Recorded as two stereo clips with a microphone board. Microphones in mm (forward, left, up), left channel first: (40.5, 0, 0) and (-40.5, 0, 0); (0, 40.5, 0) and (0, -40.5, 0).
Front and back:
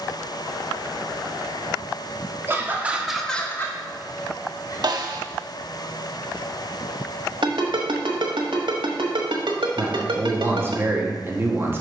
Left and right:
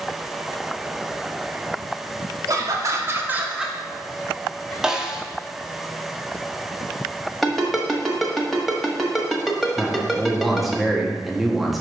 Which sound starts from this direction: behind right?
Laughter, at 2.5 s.